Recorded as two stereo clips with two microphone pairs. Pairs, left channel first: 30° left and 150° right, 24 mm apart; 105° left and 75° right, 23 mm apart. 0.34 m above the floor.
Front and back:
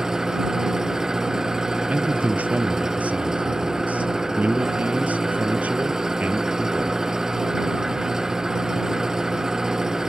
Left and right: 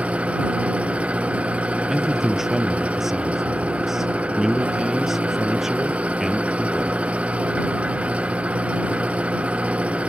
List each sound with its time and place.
0.0 s an engine running: 85° right
1.9 s a man speaking: 155° right